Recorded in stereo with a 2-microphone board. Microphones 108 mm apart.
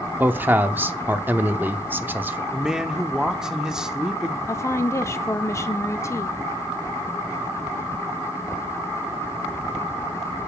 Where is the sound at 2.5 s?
5° right (ahead or behind), 0.9 m.